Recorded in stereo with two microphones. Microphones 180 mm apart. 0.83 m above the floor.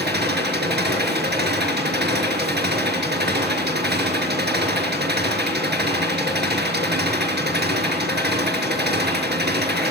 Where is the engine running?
80° right, 5.5 m.